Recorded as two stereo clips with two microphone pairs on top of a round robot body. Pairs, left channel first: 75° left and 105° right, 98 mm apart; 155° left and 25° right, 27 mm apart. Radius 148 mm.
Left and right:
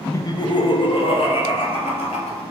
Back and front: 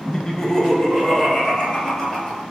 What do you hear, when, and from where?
0.1 s laughter: 90° left, 0.5 m; by 2.4 s 75° left, 1.7 m